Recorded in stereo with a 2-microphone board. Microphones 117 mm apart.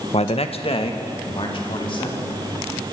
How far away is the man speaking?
About 0.9 m.